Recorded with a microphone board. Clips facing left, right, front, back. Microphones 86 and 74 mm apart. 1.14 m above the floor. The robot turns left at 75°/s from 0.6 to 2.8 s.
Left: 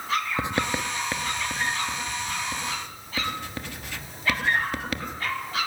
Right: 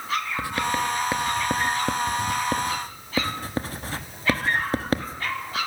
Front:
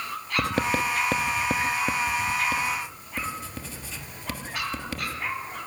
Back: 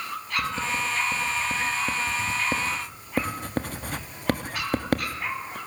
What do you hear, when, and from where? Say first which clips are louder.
0.4 s writing: right 2 dB, front 4 dB; 20° left, 1.2 m; by 5.6 s 145° right, 1.2 m